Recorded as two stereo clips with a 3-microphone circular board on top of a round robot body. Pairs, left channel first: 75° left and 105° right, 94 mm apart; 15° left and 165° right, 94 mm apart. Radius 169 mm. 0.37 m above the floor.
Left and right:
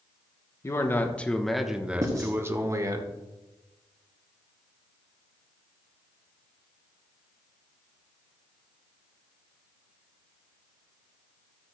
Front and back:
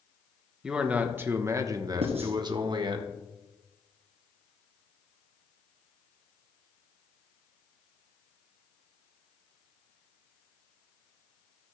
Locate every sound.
0.6 s a man speaking: 115° left, 1.1 m; by 3.0 s 145° right, 1.4 m
2.0 s writing: 165° right, 1.4 m